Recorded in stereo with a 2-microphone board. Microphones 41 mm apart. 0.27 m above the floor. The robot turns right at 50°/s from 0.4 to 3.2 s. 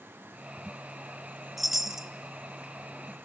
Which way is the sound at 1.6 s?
5° right (ahead or behind).